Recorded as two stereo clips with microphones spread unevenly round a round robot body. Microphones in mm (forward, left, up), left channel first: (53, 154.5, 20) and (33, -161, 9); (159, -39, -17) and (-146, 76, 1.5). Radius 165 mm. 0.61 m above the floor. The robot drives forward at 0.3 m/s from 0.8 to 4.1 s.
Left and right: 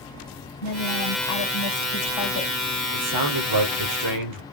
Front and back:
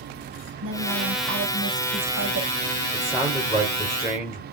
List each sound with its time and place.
0.6 s a woman speaking: 105° left, 2.5 m; by 2.5 s 115° left, 3 m
2.9 s a man speaking: 110° right, 2.5 m; by 4.4 s 120° right, 2.5 m